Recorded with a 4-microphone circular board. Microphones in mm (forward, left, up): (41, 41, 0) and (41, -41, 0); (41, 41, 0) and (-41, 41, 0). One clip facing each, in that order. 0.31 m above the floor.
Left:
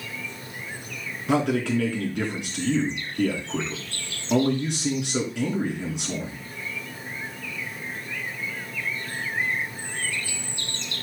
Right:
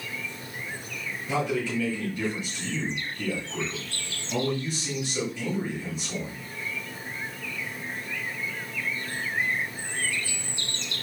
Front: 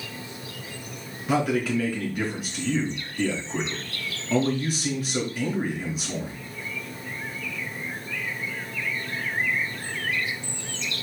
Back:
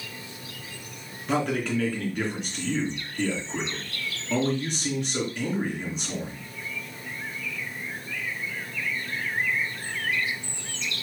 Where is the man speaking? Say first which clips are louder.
Left 5 dB, front 2 dB; 85° left, 4 m.